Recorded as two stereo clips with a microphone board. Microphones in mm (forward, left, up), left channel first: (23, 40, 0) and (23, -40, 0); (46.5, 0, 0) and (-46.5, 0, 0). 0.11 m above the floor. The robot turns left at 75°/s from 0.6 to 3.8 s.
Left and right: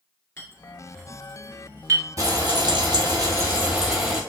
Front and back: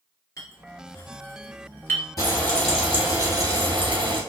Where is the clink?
40° left, 1.6 m; by 2.1 s 70° right, 1.6 m.